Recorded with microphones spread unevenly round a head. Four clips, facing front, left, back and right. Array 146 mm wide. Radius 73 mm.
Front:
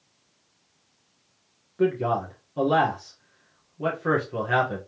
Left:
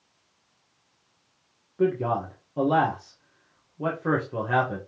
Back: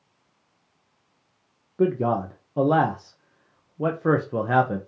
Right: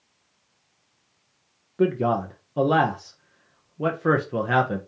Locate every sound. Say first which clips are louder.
1.8 s a man speaking: right 2 dB, back 1 dB; 135° right, 0.8 m